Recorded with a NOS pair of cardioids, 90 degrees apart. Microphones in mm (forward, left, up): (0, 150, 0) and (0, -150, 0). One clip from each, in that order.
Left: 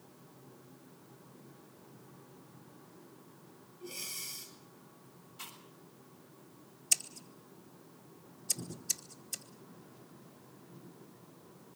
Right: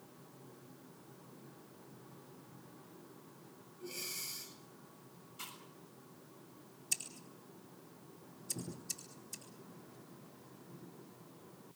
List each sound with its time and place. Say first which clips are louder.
3.8 s breathing: left 1 dB; 10° left, 8.5 m
5.4 s chewing: left 1 dB; 5° right, 7 m
6.9 s scissors: left 7 dB; 50° left, 2.5 m